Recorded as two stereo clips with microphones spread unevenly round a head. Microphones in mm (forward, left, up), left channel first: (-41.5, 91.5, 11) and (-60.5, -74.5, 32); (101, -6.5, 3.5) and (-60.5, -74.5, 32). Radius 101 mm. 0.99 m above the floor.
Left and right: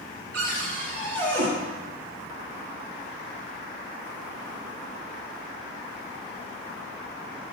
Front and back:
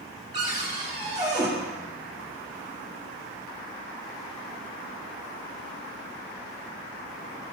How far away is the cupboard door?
About 1.7 m.